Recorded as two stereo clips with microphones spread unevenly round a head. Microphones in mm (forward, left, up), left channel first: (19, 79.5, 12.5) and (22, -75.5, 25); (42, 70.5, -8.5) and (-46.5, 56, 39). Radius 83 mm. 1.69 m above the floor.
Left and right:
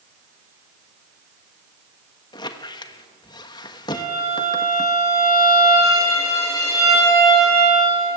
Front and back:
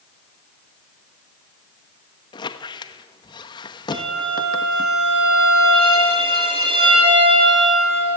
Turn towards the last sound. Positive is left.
turn(degrees=165)